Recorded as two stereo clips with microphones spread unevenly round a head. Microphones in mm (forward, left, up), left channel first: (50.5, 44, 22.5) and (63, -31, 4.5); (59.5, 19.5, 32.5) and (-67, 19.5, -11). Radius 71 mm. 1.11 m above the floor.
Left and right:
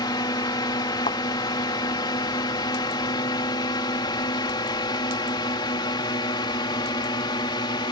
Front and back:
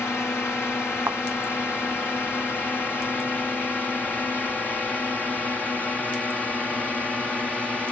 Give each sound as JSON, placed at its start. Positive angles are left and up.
{"t": 0.0, "sound": "a drone", "azimuth_deg": 80}
{"t": 1.1, "sound": "a thud", "azimuth_deg": 105}